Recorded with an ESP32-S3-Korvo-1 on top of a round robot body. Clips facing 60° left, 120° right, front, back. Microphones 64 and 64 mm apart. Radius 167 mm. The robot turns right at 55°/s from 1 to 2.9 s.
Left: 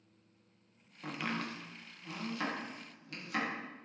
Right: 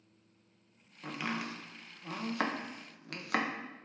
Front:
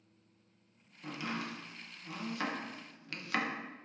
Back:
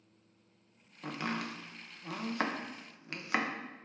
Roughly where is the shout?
No shout in this recording.